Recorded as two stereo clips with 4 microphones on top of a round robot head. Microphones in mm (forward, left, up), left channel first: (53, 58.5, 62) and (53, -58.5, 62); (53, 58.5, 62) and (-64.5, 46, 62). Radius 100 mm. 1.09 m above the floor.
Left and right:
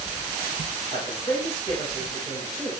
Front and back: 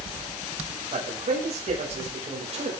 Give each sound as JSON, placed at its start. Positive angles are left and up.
{"t": 0.9, "sound": "a man speaking", "azimuth_deg": 155, "distance_m": 5.0}